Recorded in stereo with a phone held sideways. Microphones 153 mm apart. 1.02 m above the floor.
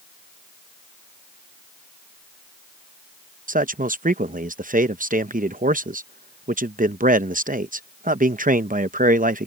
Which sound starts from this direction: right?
A man speaking, at 3.5 s.